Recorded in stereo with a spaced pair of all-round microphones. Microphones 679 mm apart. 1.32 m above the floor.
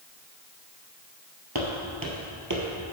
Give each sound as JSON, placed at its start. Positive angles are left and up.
{"t": 1.6, "sound": "footsteps", "side_deg": -30, "distance_m": 1.8}